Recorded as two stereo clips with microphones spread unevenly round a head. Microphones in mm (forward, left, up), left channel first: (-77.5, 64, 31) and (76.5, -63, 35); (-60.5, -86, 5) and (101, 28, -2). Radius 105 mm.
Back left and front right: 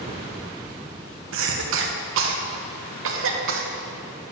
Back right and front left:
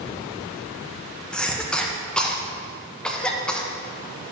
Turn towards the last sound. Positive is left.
turn(degrees=-60)